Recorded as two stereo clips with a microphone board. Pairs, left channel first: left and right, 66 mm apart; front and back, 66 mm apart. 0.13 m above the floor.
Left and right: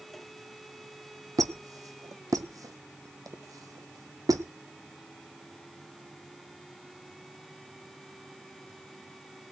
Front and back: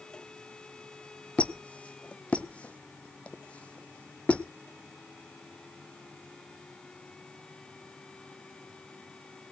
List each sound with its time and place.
1.4 s a squeak: 70° right, 0.9 m